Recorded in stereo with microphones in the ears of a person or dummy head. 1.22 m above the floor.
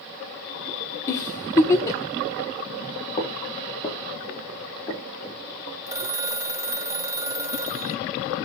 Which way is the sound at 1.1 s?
15° left (ahead or behind).